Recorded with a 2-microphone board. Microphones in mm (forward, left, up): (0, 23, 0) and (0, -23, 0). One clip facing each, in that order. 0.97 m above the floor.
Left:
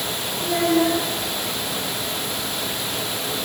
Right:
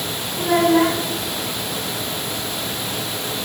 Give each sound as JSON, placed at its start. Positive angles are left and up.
{"t": 0.4, "sound": "a child speaking", "side_deg": -85, "distance_m": 3.5}